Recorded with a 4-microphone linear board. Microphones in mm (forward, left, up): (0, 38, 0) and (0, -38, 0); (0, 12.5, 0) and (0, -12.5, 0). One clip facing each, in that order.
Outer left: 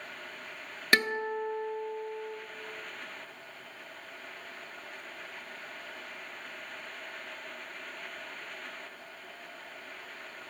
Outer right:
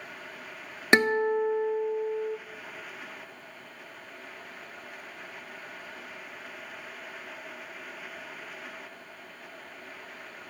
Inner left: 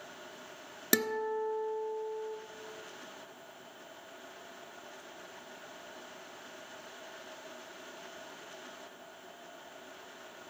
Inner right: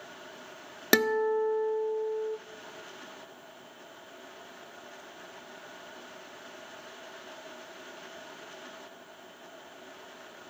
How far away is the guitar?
About 0.6 m.